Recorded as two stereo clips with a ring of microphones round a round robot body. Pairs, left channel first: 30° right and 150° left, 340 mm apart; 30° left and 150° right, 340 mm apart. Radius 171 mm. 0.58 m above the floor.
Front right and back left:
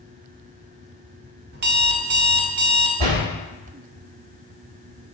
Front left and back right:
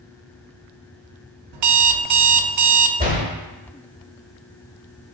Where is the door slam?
140° left, 1.9 m.